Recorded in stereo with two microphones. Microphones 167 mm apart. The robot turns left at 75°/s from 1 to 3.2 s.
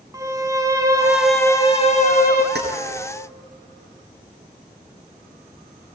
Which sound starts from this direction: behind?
A violin, at 0.1 s.